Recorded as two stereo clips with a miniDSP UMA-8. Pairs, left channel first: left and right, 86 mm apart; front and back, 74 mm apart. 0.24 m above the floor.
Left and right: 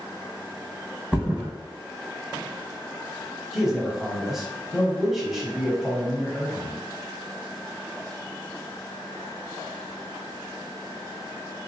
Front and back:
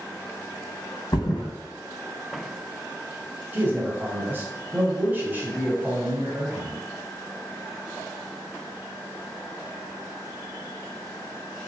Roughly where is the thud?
Ahead.